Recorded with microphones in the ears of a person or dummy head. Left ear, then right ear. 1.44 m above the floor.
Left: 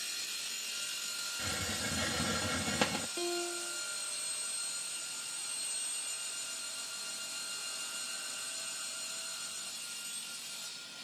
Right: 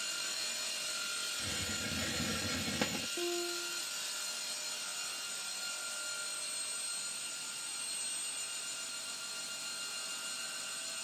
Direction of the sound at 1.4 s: 30° left (ahead or behind).